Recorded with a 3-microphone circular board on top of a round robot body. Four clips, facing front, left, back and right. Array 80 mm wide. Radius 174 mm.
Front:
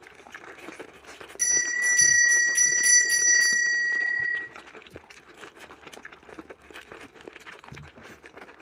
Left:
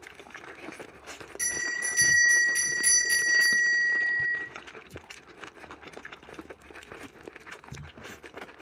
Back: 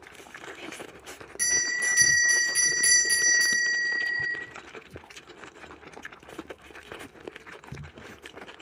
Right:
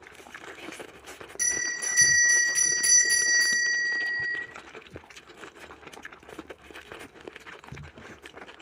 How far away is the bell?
About 2.0 m.